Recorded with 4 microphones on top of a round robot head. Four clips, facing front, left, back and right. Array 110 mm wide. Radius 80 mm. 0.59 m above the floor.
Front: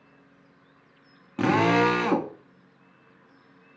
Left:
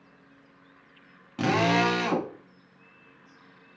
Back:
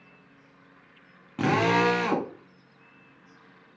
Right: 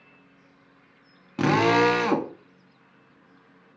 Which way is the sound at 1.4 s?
70° right.